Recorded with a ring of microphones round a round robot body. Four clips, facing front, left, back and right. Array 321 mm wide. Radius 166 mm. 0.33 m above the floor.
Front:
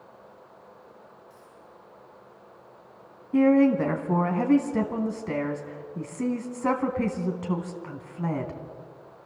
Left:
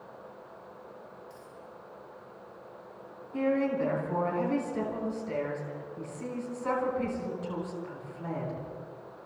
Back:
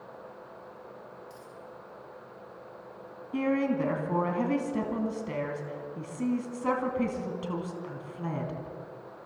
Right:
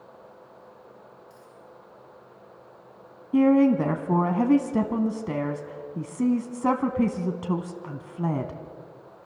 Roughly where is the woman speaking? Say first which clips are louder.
Right 9 dB, front 8 dB; right.